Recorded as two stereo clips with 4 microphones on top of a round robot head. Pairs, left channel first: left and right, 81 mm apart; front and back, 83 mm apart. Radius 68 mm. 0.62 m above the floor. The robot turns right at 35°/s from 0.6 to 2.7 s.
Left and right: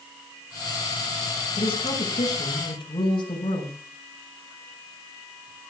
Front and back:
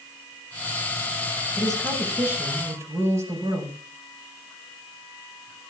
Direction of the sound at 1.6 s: 85° left.